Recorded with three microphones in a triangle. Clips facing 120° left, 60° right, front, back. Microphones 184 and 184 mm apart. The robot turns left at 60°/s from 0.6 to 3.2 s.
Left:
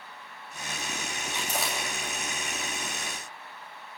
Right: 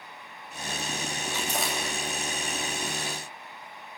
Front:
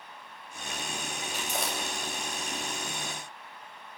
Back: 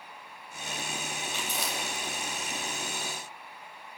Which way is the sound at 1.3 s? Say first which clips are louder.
Right 1 dB, front 3 dB; 50° left.